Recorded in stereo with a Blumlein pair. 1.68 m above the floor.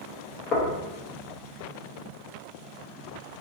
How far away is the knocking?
About 0.9 m.